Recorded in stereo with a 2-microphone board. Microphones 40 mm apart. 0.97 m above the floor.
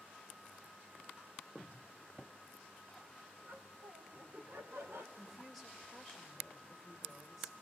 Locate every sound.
1.6 s a cupboard door: 70° right (ahead or behind), 8 m
3.4 s laughter: 65° right (ahead or behind), 2.5 m
5.2 s a woman speaking: centre (ahead or behind), 4.5 m